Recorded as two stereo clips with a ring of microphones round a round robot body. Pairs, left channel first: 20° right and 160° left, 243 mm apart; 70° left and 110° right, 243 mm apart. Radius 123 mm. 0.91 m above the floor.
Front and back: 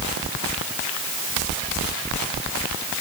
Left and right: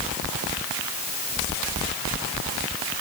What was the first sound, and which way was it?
Only background noise.